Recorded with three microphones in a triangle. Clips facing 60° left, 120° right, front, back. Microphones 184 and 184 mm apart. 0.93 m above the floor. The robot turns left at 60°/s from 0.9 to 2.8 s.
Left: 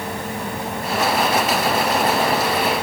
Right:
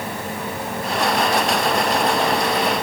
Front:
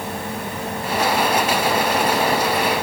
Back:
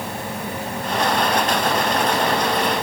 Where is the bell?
I don't hear a bell.